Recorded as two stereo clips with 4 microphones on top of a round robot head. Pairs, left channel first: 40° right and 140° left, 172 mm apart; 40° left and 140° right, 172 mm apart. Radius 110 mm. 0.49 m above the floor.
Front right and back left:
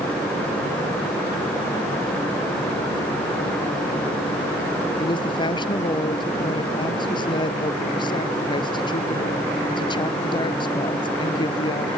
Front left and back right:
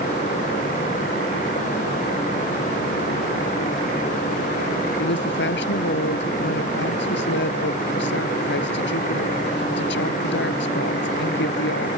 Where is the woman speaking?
25° left.